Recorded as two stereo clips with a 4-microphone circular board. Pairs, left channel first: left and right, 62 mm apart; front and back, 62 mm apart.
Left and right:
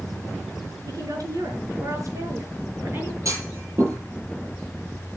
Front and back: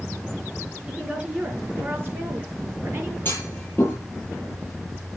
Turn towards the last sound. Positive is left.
turn(degrees=-55)